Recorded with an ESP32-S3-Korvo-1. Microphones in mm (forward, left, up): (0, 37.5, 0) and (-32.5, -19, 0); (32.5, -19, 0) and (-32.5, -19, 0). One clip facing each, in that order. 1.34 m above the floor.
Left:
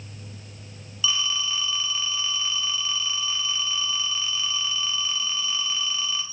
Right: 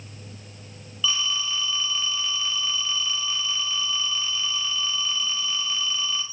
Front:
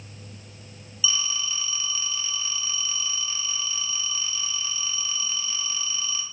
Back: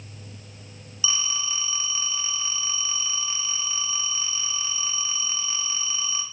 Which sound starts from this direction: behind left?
A phone ringing, at 1.0 s.